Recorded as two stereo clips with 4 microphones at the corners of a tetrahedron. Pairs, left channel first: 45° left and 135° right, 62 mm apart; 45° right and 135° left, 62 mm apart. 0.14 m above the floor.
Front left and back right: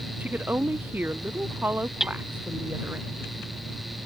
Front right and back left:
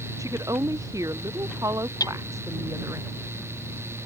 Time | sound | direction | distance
0.2 | a woman speaking | 160° left | ?
2.0 | hammering | 50° right | ?